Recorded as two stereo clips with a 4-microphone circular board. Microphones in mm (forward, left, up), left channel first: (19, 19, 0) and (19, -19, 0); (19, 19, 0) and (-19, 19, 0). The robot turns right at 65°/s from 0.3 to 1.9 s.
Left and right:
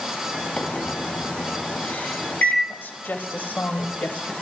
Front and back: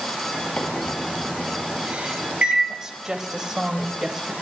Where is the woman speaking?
105° left, 2.0 m.